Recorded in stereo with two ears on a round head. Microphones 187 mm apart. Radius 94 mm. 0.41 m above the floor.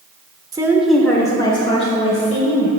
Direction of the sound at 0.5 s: 20° right (ahead or behind).